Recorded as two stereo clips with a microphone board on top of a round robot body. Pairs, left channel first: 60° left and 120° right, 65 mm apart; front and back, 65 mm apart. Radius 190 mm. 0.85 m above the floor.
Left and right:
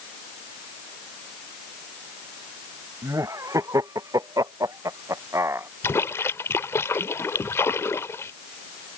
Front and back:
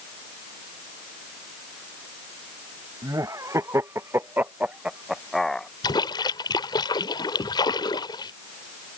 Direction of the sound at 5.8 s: 5° left.